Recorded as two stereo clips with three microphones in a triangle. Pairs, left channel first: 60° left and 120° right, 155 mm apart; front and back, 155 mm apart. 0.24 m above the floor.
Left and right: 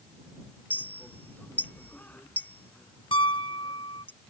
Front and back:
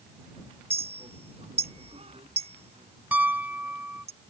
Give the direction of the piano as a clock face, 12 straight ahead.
9 o'clock.